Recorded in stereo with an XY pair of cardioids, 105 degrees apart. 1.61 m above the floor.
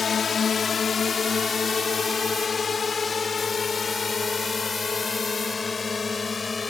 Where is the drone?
40° left; by 6.7 s 25° left.